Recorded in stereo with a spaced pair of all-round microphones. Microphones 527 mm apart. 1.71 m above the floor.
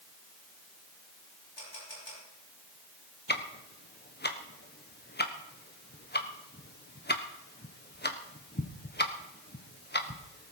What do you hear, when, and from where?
1.6 s a camera shutter: 55° left (ahead or behind), 10 m
3.3 s ticking: 20° left (ahead or behind), 1.3 m